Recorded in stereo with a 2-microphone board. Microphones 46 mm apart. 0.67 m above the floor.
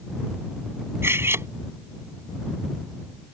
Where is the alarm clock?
I don't hear an alarm clock.